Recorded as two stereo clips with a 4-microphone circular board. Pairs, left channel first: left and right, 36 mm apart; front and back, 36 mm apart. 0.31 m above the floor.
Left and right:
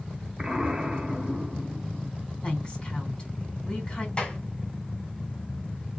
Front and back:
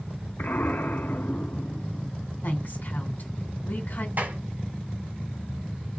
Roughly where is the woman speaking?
Ahead left.